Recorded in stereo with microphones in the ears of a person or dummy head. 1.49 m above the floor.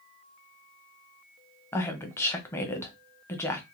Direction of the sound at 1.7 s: 10° left (ahead or behind).